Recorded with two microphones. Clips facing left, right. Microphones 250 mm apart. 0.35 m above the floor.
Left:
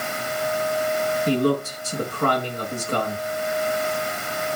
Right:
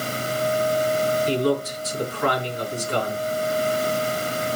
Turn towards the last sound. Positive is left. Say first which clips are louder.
# left 5 dB
turn(degrees=50)  # may be behind; listen again after turning